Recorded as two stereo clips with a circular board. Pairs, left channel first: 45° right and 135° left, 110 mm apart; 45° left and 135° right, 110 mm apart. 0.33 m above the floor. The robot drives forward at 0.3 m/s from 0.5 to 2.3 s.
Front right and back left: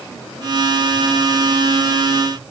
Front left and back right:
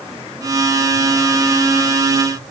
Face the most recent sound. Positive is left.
No sound to turn to.